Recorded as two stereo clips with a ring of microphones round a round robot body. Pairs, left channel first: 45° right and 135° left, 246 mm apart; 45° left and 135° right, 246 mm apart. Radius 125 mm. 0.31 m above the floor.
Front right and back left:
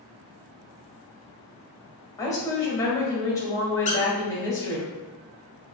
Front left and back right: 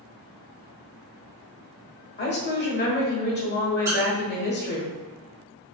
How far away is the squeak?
About 1.0 m.